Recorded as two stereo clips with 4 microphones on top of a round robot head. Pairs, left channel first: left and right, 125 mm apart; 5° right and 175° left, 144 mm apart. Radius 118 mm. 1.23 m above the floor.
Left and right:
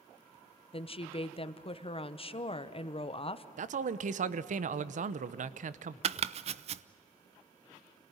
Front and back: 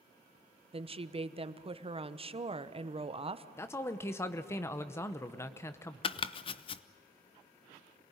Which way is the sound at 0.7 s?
130° left.